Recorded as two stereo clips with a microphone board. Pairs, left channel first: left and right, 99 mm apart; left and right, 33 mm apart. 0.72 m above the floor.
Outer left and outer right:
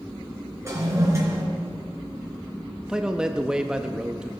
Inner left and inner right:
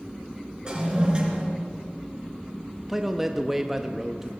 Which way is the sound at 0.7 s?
30° right (ahead or behind).